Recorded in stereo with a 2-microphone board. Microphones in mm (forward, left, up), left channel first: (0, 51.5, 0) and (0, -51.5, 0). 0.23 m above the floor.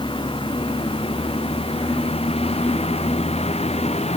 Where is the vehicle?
55° left (ahead or behind); by 4.2 s 90° left.